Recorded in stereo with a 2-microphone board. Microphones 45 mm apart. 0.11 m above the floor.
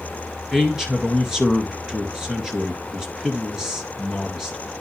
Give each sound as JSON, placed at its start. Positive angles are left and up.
{"t": 0.5, "sound": "a man speaking", "side_deg": -10, "distance_m": 1.9}